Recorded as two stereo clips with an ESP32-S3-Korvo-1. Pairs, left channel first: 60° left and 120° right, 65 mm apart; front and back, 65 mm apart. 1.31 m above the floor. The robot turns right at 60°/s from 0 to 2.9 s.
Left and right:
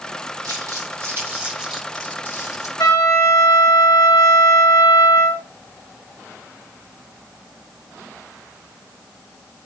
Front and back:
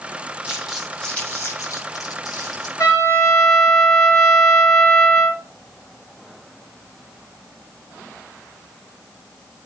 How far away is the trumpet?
About 4.5 m.